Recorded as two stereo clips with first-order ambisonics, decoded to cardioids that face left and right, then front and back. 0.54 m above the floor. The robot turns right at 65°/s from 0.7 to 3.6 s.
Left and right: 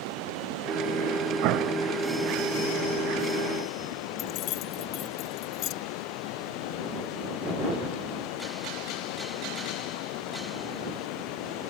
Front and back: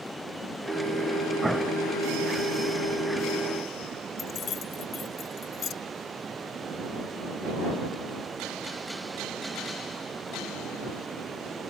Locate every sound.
0.0 s running water: 85° right; by 11.7 s 105° left
1.4 s an explosion: 100° right; by 1.9 s 70° right
4.2 s keys jangling: 55° left